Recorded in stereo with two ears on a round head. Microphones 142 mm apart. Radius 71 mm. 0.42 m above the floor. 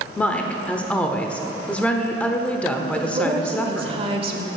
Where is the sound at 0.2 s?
10° left (ahead or behind), 0.9 m.